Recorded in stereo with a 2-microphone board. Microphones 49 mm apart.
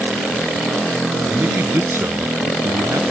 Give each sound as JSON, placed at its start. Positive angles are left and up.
{"t": 1.3, "sound": "a man speaking", "side_deg": -45}